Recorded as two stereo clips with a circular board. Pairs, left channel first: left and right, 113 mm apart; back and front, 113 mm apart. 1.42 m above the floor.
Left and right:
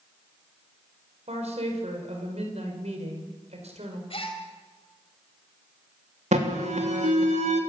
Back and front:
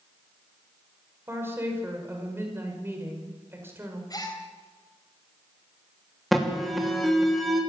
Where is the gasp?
125° left, 4 m.